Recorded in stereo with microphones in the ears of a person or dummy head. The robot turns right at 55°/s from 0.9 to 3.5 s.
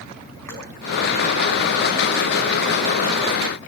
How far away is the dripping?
About 4.5 m.